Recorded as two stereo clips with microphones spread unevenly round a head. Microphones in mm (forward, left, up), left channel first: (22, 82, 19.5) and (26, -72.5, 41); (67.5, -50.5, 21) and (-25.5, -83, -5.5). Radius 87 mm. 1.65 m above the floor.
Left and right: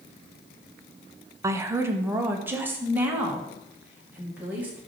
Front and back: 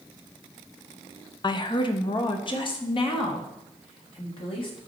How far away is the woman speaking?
About 0.9 m.